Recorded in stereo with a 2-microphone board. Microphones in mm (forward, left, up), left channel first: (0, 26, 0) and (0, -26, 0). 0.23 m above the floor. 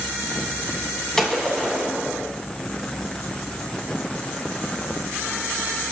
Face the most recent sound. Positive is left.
turn(degrees=15)  # may be behind; listen again after turning